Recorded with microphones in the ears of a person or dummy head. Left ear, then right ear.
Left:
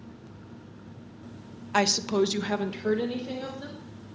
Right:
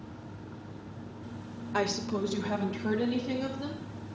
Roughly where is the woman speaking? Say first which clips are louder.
Left 7 dB; left.